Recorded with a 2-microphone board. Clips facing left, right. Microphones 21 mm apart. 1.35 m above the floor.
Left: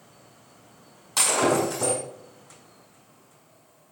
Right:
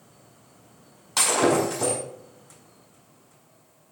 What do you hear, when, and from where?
1.2 s breaking glass: 10° right (ahead or behind), 5.5 m